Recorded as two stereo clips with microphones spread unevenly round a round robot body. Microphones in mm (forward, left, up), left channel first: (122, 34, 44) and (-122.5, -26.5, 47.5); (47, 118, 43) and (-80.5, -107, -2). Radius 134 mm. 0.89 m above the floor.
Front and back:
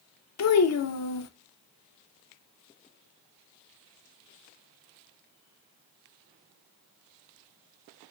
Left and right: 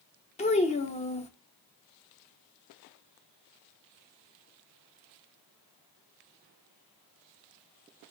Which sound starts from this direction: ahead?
A child speaking, at 0.4 s.